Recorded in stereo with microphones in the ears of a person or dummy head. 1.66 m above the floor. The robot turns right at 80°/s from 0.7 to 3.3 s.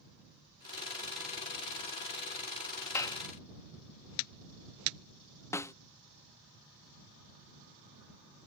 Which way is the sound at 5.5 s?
15° left (ahead or behind).